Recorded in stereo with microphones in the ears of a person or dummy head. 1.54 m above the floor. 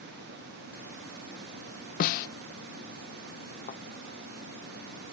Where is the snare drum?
45° left (ahead or behind).